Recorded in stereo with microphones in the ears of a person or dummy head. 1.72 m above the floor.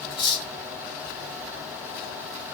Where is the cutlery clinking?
25° left (ahead or behind), 2 m.